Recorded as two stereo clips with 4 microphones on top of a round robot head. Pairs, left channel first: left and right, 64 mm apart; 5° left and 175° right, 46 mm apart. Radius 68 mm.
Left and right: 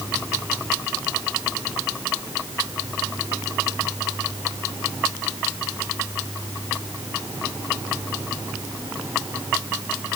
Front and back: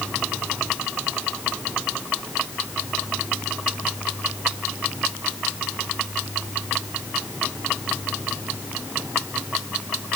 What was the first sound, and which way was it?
Only background noise.